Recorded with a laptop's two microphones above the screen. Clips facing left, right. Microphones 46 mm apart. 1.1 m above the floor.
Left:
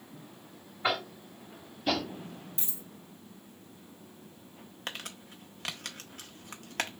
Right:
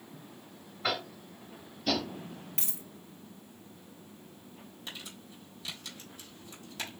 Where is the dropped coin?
60° right (ahead or behind), 2.5 m.